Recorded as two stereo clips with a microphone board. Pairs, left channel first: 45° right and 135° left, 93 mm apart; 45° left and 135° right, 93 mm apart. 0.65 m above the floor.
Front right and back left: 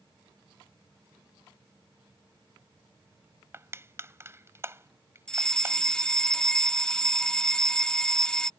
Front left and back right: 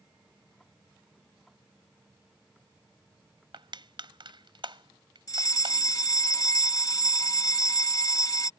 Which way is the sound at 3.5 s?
165° right.